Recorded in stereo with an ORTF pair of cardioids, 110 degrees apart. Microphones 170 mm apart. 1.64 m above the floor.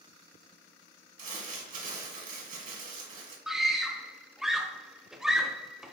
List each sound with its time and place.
1.2 s crumpling: 50° right, 1.6 m
3.5 s a scream: straight ahead, 0.8 m